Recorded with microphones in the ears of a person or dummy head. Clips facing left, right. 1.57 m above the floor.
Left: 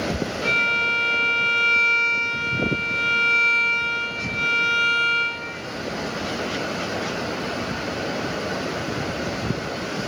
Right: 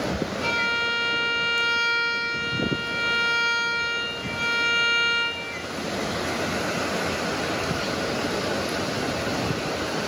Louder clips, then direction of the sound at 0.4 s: Left 1 dB; 5° left (ahead or behind).